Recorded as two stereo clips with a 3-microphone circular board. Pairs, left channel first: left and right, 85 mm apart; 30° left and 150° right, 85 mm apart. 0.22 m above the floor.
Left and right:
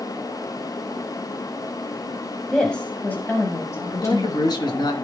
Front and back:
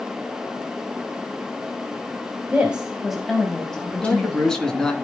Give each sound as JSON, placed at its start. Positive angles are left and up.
{"t": 2.5, "sound": "a woman speaking", "azimuth_deg": 160, "distance_m": 1.5}
{"t": 3.9, "sound": "a man speaking", "azimuth_deg": 110, "distance_m": 2.0}